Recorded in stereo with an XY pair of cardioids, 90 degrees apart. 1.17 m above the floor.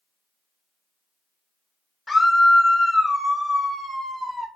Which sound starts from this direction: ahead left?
A scream, at 2.1 s.